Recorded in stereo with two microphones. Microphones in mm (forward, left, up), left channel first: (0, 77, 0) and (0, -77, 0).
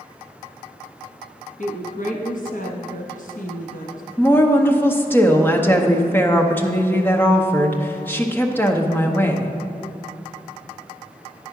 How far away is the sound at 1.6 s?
About 1.1 m.